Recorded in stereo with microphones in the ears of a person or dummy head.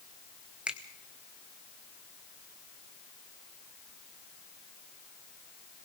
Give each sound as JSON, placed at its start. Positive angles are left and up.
{"t": 0.7, "sound": "a finger snap", "side_deg": -5, "distance_m": 1.0}